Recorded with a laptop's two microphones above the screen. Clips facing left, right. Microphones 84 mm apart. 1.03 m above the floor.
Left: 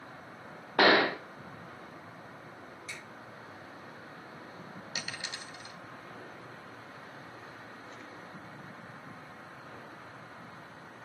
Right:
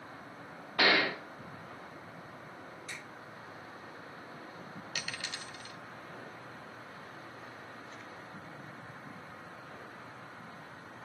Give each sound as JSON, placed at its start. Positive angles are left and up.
{"t": 0.8, "sound": "a gunshot", "side_deg": 45, "distance_m": 1.0}
{"t": 2.9, "sound": "a finger snap", "side_deg": -55, "distance_m": 5.5}
{"t": 5.0, "sound": "a dropped coin", "side_deg": 20, "distance_m": 1.8}